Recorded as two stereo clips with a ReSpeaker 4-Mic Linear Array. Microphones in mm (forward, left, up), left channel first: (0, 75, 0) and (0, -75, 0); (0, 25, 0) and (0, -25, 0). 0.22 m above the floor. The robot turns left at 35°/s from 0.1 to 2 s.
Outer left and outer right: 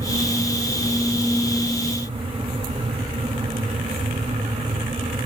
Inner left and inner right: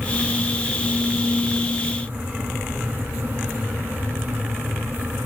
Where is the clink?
No clink in this recording.